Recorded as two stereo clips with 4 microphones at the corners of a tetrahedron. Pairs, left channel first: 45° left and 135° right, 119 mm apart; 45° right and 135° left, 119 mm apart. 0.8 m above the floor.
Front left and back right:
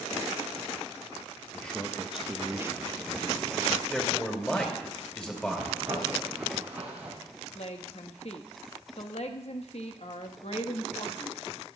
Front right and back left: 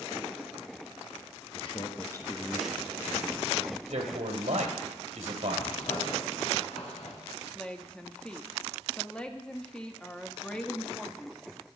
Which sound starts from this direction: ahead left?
A woman speaking, at 7.5 s.